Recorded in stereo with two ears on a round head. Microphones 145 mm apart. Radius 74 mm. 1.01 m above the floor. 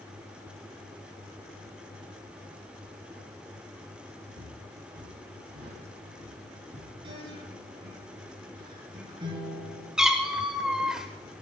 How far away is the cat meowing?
About 1.6 m.